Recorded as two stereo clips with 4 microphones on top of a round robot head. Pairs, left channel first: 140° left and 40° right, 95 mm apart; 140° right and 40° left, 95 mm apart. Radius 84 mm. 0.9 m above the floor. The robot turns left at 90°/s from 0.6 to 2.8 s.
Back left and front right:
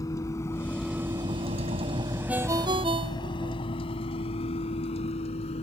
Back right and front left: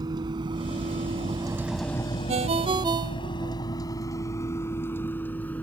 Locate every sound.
0.0 s a vehicle: 85° left; by 5.6 s 145° left
2.3 s a ringtone: 40° left; by 3.6 s 5° right